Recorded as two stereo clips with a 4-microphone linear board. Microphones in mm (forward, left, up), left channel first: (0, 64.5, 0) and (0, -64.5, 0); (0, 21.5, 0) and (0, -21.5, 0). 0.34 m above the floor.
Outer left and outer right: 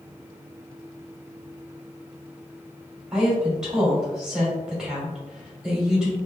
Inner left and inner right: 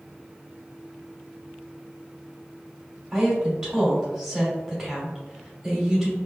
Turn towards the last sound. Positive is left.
turn(degrees=-5)  # may be behind; listen again after turning